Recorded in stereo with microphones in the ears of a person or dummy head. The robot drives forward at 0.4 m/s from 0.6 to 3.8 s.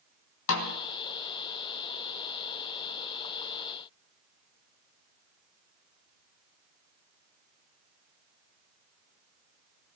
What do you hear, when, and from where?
0.5 s a snare drum: 80° left, 2.5 m